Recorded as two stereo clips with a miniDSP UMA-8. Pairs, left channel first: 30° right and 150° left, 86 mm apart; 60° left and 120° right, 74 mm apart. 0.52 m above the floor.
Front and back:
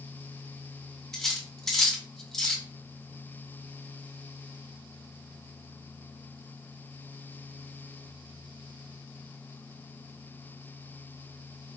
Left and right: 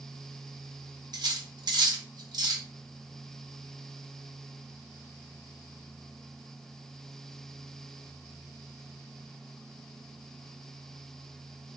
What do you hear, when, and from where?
1.1 s cutlery clinking: 115° right, 0.6 m